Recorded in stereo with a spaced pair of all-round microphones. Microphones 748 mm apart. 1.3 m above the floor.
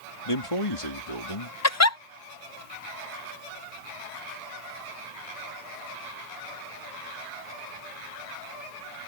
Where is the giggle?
25° left (ahead or behind).